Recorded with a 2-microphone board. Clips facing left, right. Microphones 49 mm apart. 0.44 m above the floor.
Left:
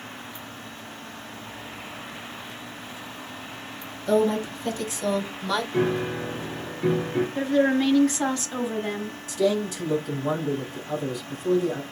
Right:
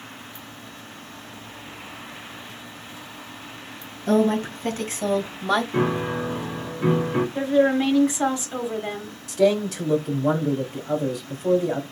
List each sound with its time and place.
4.1 s a woman speaking: 60° right (ahead or behind), 3 m; by 5.6 s 55° right (ahead or behind), 1.6 m
5.7 s a piano: 65° right (ahead or behind), 3 m
7.3 s a woman speaking: 15° right (ahead or behind), 1.1 m
9.3 s a man speaking: 70° right (ahead or behind), 2.5 m